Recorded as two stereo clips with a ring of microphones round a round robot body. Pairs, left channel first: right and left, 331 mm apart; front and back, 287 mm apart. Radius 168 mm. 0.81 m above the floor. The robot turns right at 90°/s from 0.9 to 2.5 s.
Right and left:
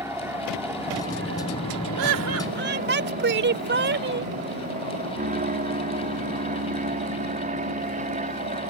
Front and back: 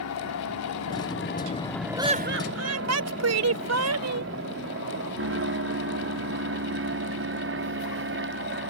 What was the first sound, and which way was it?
An aircraft, 10° left.